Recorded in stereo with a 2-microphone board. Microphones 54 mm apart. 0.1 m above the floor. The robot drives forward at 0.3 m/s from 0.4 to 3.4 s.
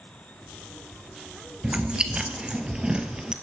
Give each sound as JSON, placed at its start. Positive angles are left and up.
{"t": 1.6, "sound": "chewing", "side_deg": -20, "distance_m": 1.0}